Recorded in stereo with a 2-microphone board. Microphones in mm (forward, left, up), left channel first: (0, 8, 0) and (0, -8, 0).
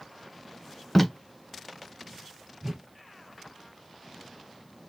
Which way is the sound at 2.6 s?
30° right (ahead or behind).